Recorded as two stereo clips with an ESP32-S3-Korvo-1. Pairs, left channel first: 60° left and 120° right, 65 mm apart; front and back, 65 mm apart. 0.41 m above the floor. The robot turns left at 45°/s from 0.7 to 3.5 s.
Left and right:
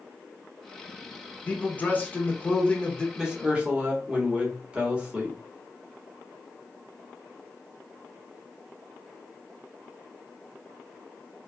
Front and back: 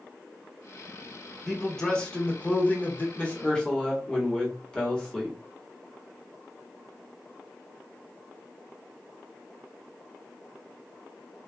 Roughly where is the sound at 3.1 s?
Ahead right.